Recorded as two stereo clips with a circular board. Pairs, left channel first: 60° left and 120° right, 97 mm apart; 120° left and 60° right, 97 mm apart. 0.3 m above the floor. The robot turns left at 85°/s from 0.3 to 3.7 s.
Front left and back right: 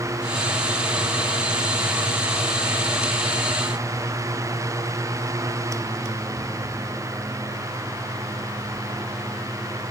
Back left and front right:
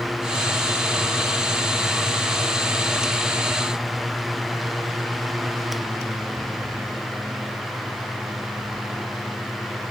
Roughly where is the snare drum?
No snare drum in this recording.